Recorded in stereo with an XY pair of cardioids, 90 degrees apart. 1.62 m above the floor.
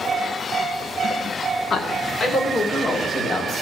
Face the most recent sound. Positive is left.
turn(degrees=60)